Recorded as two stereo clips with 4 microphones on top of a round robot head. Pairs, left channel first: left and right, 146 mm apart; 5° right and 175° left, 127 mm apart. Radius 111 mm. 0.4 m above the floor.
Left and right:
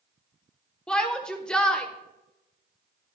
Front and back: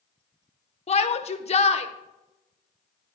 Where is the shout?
5° left, 1.3 m.